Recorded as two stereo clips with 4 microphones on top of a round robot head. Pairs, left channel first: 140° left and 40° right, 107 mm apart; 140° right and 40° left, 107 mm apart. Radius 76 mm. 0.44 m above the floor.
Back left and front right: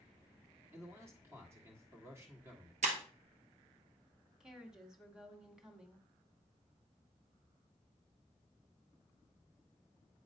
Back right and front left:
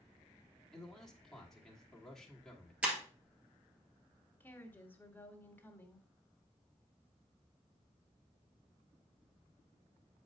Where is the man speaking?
60° right, 1.5 m.